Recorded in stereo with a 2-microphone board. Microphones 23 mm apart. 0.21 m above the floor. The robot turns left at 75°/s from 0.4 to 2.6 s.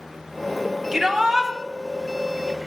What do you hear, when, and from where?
0.9 s a shout: 15° right (ahead or behind), 1.1 m; by 1.5 s 20° right (ahead or behind), 1.1 m